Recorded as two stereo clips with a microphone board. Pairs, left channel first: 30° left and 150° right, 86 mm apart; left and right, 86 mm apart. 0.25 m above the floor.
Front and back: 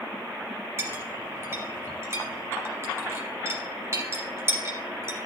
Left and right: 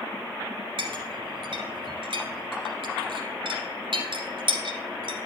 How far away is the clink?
About 2 m.